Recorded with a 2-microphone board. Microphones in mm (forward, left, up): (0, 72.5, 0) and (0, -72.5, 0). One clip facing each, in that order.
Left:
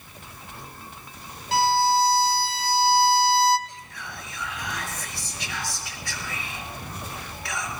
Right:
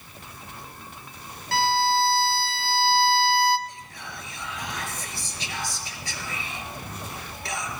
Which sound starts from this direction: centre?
A violin, at 1.5 s.